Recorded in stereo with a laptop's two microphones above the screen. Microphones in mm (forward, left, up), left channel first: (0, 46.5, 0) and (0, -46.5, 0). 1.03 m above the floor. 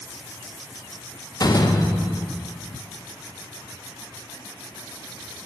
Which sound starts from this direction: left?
A door slam, at 1.4 s.